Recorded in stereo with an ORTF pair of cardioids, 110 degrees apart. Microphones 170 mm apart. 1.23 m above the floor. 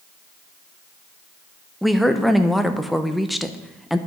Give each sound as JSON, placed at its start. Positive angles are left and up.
{"t": 1.8, "sound": "a woman speaking", "azimuth_deg": 0, "distance_m": 0.7}